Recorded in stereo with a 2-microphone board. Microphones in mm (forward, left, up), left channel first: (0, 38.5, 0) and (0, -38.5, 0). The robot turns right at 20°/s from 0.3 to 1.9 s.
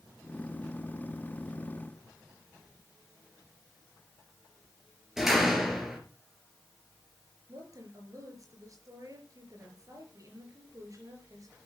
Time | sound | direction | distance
5.2 | a door slam | 5° right (ahead or behind) | 3.5 m
7.5 | a woman speaking | 45° right (ahead or behind) | 4.5 m